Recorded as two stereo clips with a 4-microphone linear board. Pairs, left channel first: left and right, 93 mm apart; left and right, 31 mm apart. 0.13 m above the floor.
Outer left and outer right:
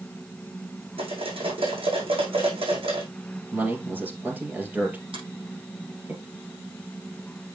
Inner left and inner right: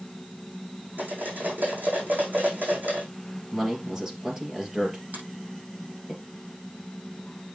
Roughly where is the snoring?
No snoring in this recording.